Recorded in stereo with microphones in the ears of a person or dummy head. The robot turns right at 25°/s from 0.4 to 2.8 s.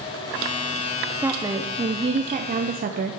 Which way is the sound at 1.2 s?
170° right.